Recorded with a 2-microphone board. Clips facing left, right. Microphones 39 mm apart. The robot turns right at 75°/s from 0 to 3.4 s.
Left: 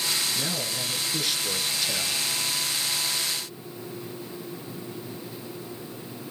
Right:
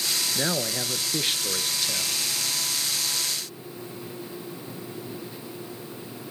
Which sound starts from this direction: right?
A man speaking, at 0.3 s.